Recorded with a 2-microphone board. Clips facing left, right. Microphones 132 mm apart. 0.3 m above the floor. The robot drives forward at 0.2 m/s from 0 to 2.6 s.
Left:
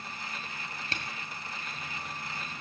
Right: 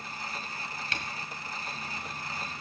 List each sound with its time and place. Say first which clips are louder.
0.9 s a camera shutter: right 1 dB; 30° left (ahead or behind), 1.3 m